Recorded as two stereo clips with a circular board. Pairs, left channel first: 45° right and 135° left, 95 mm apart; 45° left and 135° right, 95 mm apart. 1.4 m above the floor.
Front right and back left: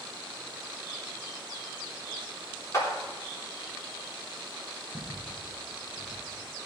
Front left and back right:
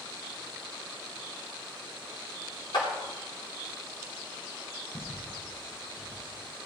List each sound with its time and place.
2.7 s a clap: 10° left, 3 m
4.9 s footsteps: 25° right, 4.5 m; by 6.2 s 20° right, 5.5 m